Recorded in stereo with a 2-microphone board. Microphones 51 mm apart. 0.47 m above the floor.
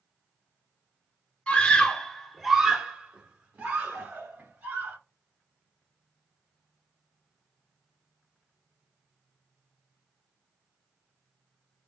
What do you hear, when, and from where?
1.5 s a scream: 25° left (ahead or behind), 1.1 m; by 5.0 s 45° right (ahead or behind), 1.8 m